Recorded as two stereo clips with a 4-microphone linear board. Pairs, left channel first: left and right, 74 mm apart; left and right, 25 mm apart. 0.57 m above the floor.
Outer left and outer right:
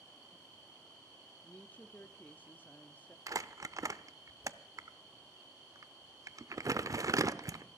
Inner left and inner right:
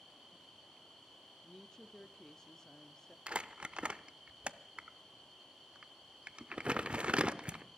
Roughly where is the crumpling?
Right.